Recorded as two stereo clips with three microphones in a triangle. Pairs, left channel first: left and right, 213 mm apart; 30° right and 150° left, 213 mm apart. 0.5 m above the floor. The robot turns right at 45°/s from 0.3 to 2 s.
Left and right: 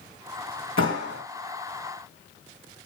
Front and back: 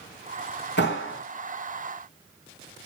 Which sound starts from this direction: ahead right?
A clap, at 0.8 s.